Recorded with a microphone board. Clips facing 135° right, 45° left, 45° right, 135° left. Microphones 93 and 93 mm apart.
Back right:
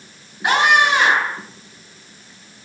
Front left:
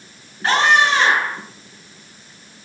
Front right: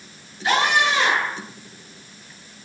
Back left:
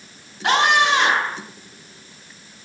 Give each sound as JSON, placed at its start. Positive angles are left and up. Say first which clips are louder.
{"t": 0.4, "sound": "a scream", "louder": "even, back left 3 dB", "azimuth_deg": 150, "distance_m": 8.5}